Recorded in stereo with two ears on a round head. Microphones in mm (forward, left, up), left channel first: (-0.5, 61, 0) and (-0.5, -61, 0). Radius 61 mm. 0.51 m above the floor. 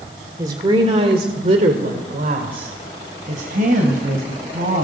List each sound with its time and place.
0.4 s a woman speaking: 30° right (ahead or behind), 1.9 m; by 4.8 s 60° right (ahead or behind), 4.5 m